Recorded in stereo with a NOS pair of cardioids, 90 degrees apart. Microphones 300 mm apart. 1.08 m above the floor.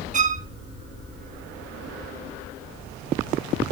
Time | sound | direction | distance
0.1 | a violin | 25° right | 0.9 m